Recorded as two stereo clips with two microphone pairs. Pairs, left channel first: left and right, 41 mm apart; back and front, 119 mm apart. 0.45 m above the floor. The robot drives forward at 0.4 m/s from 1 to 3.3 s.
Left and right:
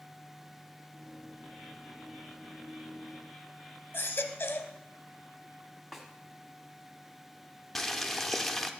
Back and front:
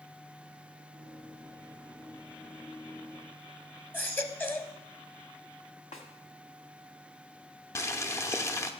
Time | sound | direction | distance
3.9 | a baby crying | 110° left | 0.6 m
5.9 | a snare drum | 175° right | 1.2 m
7.8 | boiling | 170° left | 0.5 m